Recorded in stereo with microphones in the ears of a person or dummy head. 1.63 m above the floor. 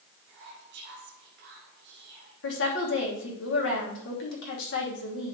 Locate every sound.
0.3 s whispering: 55° right (ahead or behind), 1.4 m
2.4 s a woman speaking: 75° left (ahead or behind), 2.5 m